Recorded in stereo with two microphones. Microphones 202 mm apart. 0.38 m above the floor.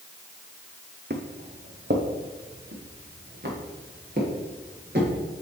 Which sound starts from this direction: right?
Footsteps, at 1.1 s.